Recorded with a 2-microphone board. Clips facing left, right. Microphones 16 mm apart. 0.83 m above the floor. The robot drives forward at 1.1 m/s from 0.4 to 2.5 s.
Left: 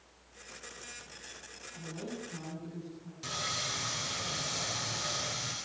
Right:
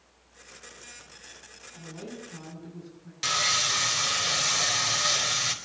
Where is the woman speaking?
15° right (ahead or behind), 8.5 m.